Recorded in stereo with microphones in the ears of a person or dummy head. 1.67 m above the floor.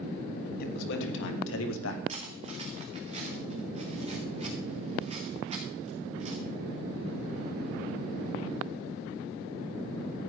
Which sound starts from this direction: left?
A man speaking, at 0.6 s.